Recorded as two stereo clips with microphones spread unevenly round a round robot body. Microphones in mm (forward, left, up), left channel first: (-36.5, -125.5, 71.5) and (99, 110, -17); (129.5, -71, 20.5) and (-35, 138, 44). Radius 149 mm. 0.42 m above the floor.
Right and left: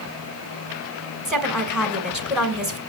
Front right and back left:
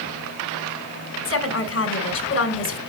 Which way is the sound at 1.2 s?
20° right.